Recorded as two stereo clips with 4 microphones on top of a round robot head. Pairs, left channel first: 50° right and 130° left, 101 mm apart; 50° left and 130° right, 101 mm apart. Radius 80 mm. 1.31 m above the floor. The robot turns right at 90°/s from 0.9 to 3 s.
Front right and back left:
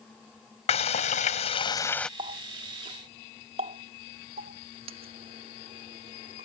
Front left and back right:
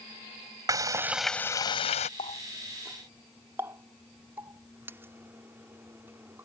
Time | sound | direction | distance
0.7 | frying | 70° right | ?
2.2 | a running tap | 85° left | ?